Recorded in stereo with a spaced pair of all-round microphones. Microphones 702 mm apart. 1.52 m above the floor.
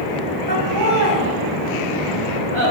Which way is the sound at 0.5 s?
85° right.